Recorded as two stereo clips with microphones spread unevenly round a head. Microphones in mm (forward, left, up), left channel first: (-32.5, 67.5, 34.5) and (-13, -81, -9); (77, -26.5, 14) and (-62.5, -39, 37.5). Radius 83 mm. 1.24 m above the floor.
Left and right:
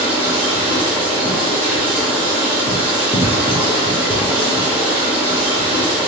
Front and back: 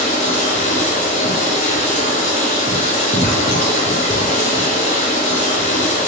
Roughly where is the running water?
Ahead.